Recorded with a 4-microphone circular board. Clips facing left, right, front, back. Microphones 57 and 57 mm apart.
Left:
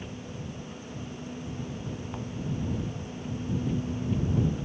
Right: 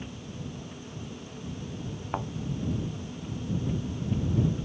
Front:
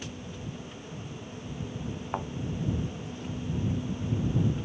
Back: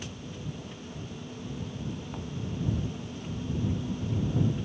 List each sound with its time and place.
2.1 s a thud: 45° right